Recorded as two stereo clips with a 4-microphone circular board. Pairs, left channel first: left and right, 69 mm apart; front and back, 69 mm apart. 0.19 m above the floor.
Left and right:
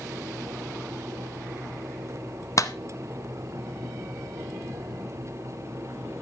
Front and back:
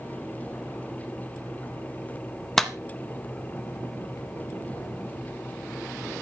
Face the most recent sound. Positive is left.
turn(degrees=85)